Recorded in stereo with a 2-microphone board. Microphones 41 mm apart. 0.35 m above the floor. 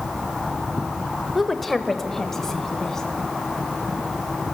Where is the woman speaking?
Centre (ahead or behind), 1.0 m; by 3.1 s 15° left (ahead or behind), 2.5 m.